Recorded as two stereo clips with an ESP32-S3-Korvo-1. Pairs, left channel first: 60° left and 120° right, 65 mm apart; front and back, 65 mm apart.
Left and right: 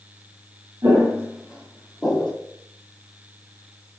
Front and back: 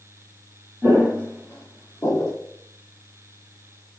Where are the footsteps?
80° right, 1.2 m; by 2.3 s 15° right, 1.2 m.